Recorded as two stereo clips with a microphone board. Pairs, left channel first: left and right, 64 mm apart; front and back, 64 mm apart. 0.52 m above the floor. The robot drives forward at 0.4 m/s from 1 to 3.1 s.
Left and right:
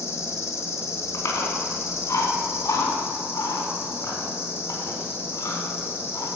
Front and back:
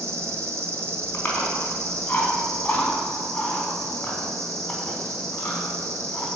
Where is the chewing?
60° left, 4.5 m; by 6.3 s 70° left, 4 m.